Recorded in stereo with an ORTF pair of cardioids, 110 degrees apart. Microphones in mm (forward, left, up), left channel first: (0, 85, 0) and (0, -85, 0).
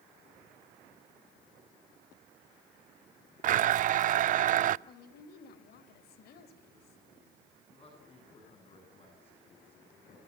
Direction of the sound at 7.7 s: 35° left.